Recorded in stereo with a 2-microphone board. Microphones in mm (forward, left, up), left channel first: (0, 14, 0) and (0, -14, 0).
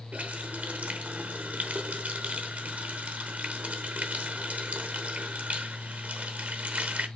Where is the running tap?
50° right (ahead or behind), 0.7 m.